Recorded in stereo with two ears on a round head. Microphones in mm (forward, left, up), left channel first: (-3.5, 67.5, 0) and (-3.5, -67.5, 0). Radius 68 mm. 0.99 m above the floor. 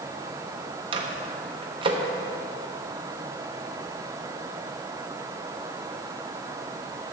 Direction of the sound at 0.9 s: 35° right (ahead or behind).